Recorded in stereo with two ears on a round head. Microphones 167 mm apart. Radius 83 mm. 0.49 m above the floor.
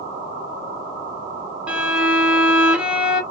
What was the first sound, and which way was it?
A violin, 5° right (ahead or behind).